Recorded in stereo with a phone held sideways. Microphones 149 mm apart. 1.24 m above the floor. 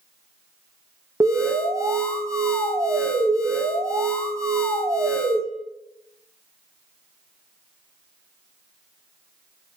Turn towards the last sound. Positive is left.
turn(degrees=-20)  # may be behind; listen again after turning